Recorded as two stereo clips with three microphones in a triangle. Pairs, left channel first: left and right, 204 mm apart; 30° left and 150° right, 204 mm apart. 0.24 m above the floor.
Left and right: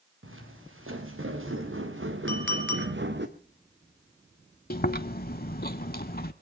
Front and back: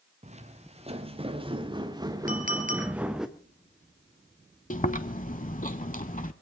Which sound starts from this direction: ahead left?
Chewing, at 4.7 s.